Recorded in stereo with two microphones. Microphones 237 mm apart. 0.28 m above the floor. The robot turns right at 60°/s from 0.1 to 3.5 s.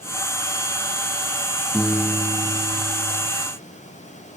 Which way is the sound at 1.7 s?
175° left.